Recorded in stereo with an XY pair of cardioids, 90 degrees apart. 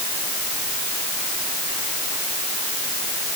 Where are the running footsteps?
No running footsteps in this recording.